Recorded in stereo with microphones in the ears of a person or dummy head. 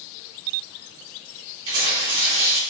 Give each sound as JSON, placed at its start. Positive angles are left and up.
{"t": 1.7, "sound": "tearing paper", "side_deg": -75, "distance_m": 1.6}